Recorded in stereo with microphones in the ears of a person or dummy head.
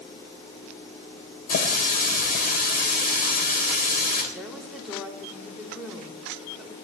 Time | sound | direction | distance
1.5 | a running tap | 45° left (ahead or behind) | 3 m
4.3 | a woman speaking | 5° right (ahead or behind) | 3 m